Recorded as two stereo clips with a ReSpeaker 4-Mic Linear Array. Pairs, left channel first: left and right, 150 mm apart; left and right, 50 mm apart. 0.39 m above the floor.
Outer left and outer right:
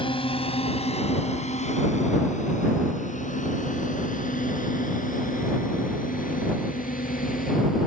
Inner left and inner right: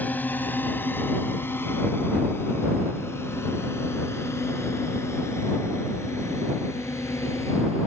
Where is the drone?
35° left (ahead or behind); by 7.9 s 70° left (ahead or behind).